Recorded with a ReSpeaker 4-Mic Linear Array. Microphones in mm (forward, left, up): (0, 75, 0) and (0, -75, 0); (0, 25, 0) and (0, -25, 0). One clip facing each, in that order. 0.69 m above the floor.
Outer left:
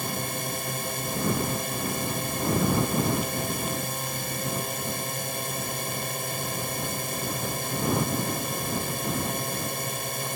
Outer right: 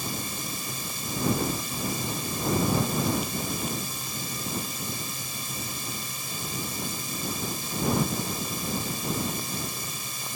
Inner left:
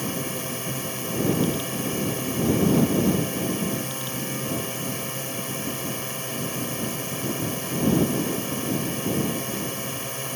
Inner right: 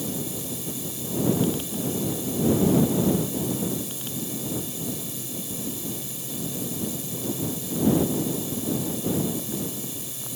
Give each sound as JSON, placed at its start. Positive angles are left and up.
{"t": 0.0, "sound": "a drone", "side_deg": 65}